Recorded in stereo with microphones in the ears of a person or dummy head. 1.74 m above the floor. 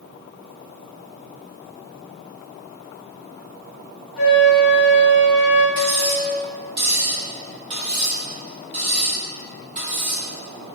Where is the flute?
Centre (ahead or behind), 0.8 m.